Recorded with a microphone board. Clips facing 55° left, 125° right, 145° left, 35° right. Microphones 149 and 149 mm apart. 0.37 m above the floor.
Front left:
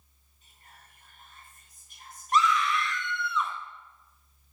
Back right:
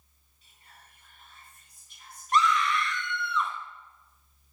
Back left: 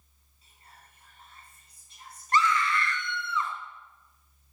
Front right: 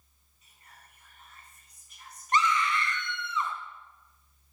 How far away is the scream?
About 1.0 m.